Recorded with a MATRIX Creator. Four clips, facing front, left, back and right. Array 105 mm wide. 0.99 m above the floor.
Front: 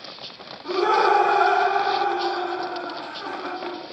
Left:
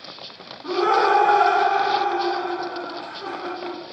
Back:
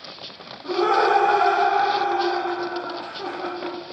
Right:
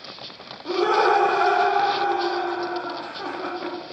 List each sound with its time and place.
0.6 s laughter: 105° left, 1.7 m; by 3.8 s 110° right, 1.2 m